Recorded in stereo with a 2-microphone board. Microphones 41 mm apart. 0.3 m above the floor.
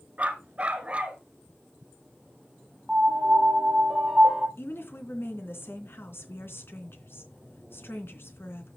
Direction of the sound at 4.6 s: 70° left (ahead or behind).